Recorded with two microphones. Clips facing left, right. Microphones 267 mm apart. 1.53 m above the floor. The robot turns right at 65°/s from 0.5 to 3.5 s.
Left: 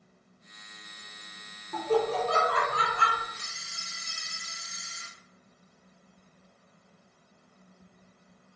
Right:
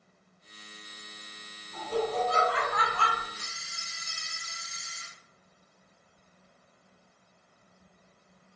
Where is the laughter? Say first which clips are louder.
Left 4 dB; 80° left, 0.6 m; by 3.2 s 175° left, 0.6 m.